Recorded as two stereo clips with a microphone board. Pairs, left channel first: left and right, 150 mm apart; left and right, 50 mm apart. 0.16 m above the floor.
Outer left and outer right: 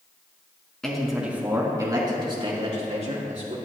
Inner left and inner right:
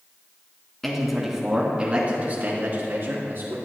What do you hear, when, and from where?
0.8 s a man speaking: 5° left (ahead or behind), 1.9 m; by 3.5 s 55° right (ahead or behind), 2.5 m